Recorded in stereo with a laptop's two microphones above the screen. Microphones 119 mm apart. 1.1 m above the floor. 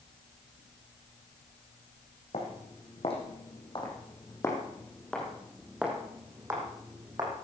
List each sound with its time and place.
2.3 s footsteps: 60° left (ahead or behind), 4 m; by 7.3 s 35° right (ahead or behind), 3.5 m